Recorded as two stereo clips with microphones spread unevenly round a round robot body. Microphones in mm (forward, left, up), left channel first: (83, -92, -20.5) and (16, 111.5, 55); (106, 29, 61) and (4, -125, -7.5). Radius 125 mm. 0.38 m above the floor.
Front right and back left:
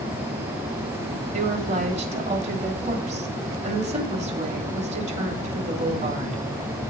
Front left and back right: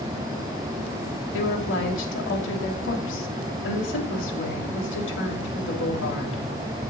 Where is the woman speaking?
45° left, 2.5 m.